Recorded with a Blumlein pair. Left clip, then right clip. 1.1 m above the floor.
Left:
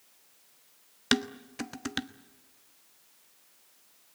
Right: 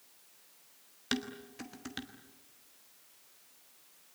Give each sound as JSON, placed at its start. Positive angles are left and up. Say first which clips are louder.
{"t": 1.1, "sound": "dishes clattering", "louder": "left 8 dB", "azimuth_deg": 25, "distance_m": 0.9}